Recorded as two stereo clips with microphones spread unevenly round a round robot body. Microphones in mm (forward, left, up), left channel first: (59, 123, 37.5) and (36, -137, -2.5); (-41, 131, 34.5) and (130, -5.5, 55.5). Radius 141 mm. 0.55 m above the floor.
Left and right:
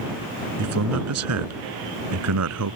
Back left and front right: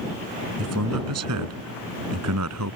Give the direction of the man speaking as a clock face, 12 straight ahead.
2 o'clock.